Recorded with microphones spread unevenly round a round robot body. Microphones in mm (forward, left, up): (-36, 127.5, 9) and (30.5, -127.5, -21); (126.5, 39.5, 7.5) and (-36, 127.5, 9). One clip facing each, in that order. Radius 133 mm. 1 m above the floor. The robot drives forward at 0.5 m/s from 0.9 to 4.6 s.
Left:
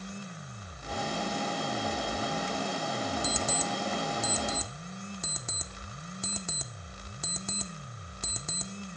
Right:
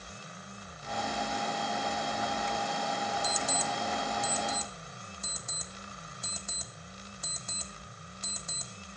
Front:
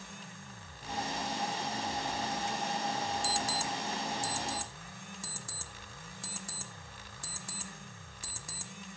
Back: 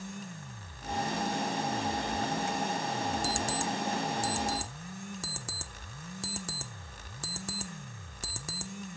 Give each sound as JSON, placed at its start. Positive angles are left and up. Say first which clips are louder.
{"t": 3.2, "sound": "an alarm clock", "louder": "left 3 dB, back 3 dB", "azimuth_deg": 100, "distance_m": 1.0}